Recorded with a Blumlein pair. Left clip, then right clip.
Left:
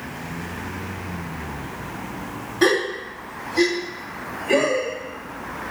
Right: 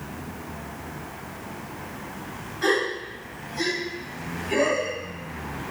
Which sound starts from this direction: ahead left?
A gasp, at 2.6 s.